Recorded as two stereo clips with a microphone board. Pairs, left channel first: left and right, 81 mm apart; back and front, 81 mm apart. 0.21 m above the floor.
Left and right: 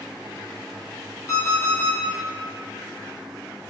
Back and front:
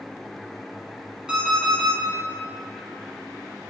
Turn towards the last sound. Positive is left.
turn(degrees=75)